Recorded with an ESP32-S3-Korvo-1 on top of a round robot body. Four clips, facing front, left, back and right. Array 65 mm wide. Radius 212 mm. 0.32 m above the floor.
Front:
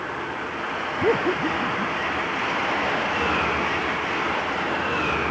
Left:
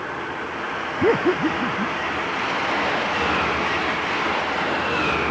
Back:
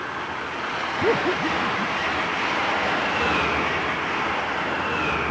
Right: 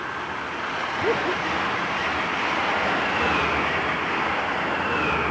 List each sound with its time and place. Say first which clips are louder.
1.0 s laughter: left 6 dB, even; 85° left